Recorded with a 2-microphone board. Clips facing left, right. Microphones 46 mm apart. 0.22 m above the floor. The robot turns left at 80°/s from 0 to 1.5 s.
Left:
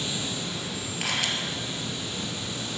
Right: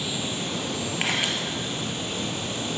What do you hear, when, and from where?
0.0 s running water: 10° right, 1.7 m; by 2.8 s 130° right, 1.7 m
1.0 s a camera shutter: 40° right (ahead or behind), 3 m; by 1.3 s 15° right (ahead or behind), 3 m